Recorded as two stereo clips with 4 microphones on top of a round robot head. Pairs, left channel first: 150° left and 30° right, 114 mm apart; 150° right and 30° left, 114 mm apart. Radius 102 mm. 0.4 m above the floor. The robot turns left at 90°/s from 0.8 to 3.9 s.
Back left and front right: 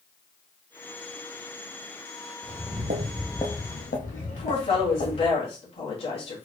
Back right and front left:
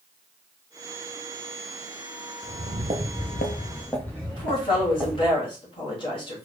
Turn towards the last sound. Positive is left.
turn(degrees=175)